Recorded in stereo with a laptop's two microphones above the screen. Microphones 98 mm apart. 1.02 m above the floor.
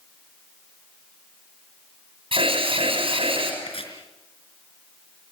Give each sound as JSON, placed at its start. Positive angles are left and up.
{"t": 2.3, "sound": "an alarm", "side_deg": -70, "distance_m": 7.0}
{"t": 3.6, "sound": "chopping", "side_deg": 70, "distance_m": 4.5}